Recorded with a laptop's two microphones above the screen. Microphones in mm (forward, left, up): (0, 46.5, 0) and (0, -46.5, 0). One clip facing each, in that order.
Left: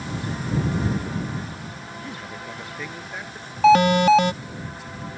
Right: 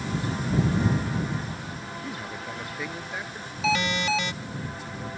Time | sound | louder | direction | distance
2.0 | a man speaking | even | 5° right (ahead or behind) | ?
3.6 | an alarm | left 12 dB | 50° left (ahead or behind) | ?